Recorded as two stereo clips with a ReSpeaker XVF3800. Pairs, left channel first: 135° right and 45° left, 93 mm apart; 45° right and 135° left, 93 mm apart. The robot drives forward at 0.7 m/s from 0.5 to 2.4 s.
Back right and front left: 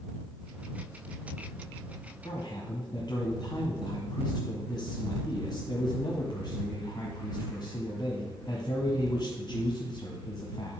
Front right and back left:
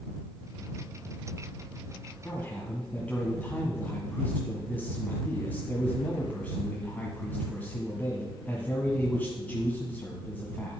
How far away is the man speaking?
About 1.5 m.